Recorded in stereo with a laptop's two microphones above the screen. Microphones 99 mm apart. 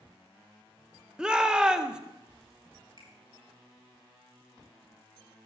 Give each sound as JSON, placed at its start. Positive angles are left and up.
{"t": 1.2, "sound": "a shout", "side_deg": -10, "distance_m": 0.7}
{"t": 3.0, "sound": "a finger snap", "side_deg": -50, "distance_m": 4.5}